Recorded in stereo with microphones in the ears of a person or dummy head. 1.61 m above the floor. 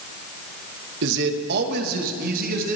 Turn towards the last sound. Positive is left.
turn(degrees=-45)  # may be behind; listen again after turning